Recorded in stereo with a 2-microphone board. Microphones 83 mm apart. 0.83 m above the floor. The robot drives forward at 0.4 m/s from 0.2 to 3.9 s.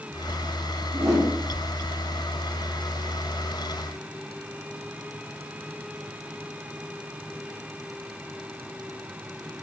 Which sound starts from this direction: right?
A whoosh, at 0.9 s.